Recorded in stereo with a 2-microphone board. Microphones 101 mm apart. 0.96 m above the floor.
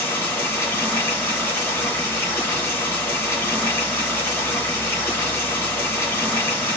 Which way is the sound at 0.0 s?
20° left (ahead or behind).